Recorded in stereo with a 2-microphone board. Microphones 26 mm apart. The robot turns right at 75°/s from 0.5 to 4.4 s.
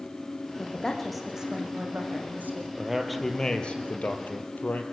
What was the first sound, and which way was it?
A woman speaking, 135° left.